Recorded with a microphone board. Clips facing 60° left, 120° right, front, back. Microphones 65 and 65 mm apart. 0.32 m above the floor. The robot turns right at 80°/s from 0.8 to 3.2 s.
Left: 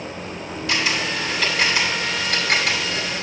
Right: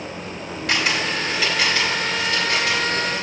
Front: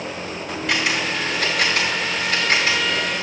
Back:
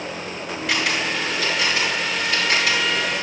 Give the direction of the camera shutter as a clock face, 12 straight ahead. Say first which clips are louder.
Right 1 dB, front 1 dB; 3 o'clock.